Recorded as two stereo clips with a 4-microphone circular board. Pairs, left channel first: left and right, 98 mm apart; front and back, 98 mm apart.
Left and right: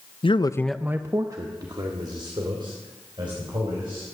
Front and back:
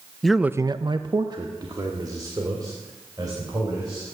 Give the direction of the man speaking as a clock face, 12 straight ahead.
9 o'clock.